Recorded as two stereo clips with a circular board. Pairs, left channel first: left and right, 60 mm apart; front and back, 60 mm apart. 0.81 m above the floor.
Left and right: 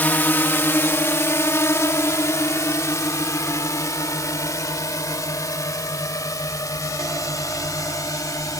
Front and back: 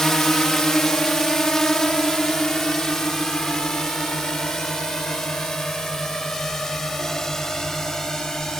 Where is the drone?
75° left; by 8.6 s 80° left.